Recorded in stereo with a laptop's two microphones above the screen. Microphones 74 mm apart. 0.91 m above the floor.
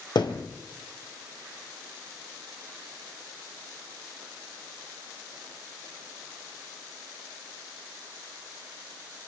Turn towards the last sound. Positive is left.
turn(degrees=75)  # may be behind; listen again after turning